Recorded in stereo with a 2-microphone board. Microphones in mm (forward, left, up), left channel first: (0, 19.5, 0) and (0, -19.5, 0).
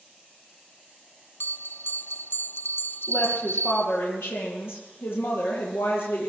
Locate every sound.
1.4 s a bell: 65° left (ahead or behind), 0.6 m
3.1 s a woman speaking: 80° left, 9 m